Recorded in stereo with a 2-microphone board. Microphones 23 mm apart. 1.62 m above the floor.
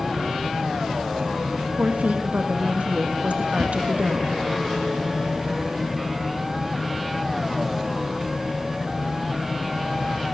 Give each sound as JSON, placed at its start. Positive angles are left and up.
{"t": 1.8, "sound": "a woman speaking", "side_deg": -80, "distance_m": 2.5}
{"t": 3.6, "sound": "a whoosh", "side_deg": 25, "distance_m": 4.5}